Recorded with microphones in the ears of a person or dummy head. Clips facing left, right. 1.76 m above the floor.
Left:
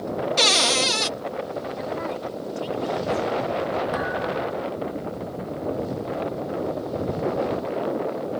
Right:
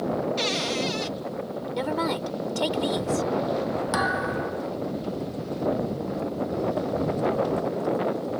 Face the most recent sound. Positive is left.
turn(degrees=-60)  # may be behind; listen again after turning